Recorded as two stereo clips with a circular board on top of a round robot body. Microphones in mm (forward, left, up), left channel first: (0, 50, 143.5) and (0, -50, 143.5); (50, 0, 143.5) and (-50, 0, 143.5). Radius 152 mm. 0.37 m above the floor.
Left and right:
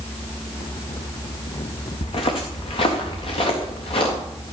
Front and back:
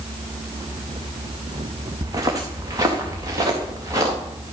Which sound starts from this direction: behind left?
Footsteps, at 2.0 s.